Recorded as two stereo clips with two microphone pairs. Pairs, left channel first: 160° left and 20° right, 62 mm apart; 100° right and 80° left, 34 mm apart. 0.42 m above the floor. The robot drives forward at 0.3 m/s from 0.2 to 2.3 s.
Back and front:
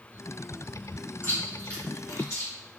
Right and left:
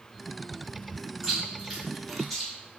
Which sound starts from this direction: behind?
Chewing, at 1.2 s.